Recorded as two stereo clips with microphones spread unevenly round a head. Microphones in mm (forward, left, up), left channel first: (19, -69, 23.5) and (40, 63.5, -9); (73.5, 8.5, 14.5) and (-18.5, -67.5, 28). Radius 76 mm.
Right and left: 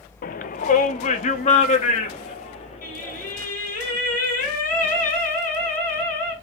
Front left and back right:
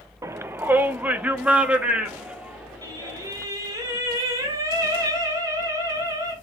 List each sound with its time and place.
0.2 s a shout: 75° right, 0.6 m; by 3.4 s 60° right, 3.5 m
2.8 s singing: 80° right, 5.5 m